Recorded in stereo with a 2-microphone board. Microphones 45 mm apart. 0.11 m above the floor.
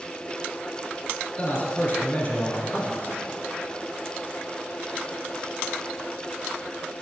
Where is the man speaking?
30° left (ahead or behind), 2.0 m.